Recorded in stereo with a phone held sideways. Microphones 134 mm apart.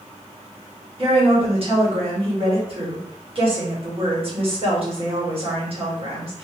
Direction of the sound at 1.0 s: 45° right (ahead or behind).